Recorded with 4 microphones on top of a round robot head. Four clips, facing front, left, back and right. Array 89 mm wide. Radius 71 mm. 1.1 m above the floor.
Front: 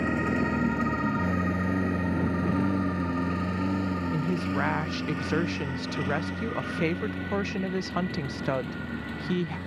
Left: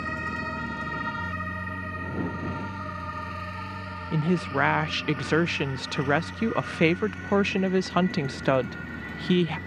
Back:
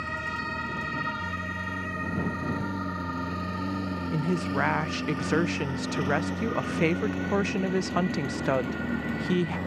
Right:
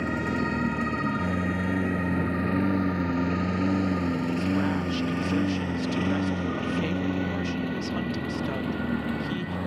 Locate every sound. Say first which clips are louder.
0.0 s a lawn mower: right 4 dB, front 6 dB; 35° right; by 9.7 s 120° right
4.1 s a woman speaking: even, back 4 dB; 105° left